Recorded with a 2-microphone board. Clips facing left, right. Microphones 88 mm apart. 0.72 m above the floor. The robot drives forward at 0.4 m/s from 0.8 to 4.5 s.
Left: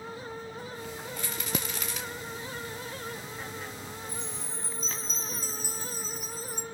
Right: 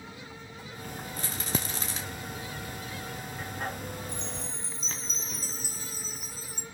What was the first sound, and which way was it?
A rattle, 40° right (ahead or behind).